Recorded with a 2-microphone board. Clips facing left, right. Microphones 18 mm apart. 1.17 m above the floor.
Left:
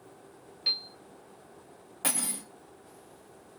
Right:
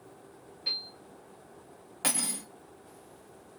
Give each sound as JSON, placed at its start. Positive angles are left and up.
{"t": 0.7, "sound": "a piano", "side_deg": 50, "distance_m": 0.8}
{"t": 2.0, "sound": "cutlery clinking", "side_deg": -25, "distance_m": 0.8}